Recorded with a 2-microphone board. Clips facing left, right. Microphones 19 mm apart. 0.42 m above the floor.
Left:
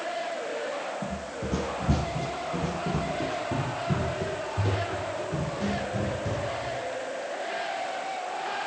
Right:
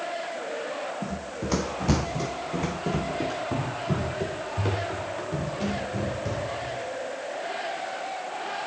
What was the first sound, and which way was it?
Running footsteps, 55° right (ahead or behind).